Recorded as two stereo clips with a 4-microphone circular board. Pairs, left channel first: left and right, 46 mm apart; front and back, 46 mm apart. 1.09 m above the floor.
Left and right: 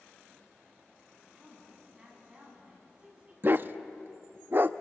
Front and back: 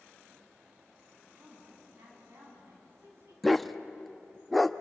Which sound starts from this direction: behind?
A woman speaking, at 1.2 s.